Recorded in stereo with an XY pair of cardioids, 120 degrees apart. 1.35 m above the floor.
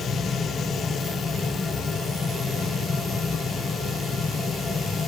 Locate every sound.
0.0 s a fan: 35° left, 0.8 m